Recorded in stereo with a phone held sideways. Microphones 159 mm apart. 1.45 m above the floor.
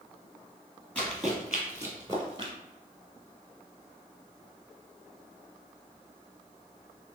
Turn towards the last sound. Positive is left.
turn(degrees=-30)  # may be behind; listen again after turning